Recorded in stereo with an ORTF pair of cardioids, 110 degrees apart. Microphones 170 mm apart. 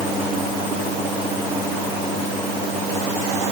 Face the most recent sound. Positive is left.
No sound to turn to.